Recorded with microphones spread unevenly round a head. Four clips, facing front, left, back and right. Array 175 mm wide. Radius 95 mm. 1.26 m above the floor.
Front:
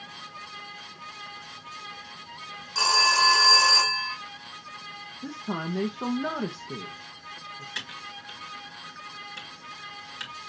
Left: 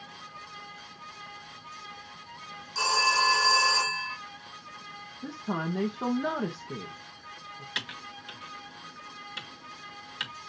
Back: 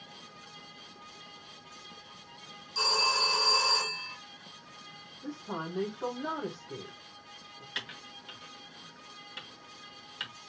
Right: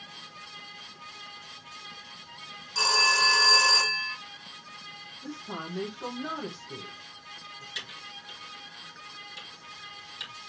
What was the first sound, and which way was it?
A phone ringing, 10° right.